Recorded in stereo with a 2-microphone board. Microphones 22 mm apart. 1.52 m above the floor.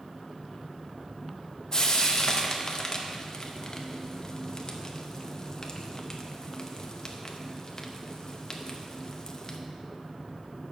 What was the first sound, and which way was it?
Frying, 30° left (ahead or behind).